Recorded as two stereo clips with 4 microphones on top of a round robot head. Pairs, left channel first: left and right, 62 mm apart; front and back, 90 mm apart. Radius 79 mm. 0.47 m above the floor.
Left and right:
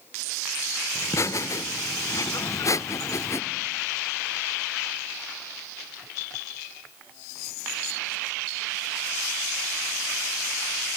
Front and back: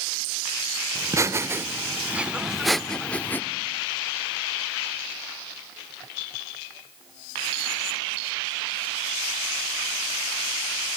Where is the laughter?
130° left, 1.5 m; by 3.4 s 65° left, 1.0 m.